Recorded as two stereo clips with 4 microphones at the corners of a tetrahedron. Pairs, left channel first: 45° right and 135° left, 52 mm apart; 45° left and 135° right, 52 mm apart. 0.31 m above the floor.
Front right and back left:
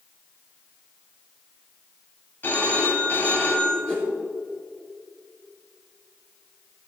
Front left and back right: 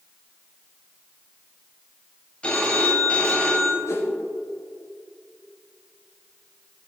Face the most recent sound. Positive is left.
turn(degrees=20)